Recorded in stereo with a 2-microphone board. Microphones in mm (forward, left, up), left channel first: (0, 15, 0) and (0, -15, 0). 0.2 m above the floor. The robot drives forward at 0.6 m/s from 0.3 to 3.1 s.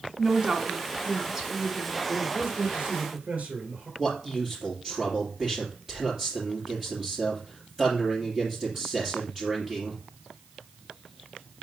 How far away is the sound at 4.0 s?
About 3.5 m.